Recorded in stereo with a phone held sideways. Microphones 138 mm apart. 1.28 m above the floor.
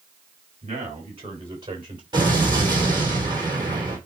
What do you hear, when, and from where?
0.6 s a man speaking: 45° right (ahead or behind), 6 m; by 2.0 s 35° right (ahead or behind), 5.5 m
2.1 s an explosion: 30° right (ahead or behind), 4 m